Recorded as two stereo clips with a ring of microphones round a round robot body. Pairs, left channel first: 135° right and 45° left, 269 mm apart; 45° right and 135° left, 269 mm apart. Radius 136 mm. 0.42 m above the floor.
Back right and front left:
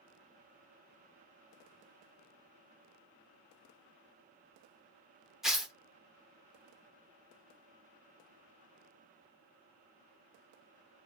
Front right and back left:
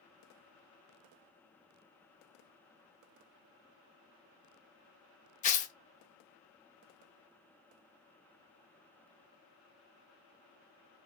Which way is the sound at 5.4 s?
40° right.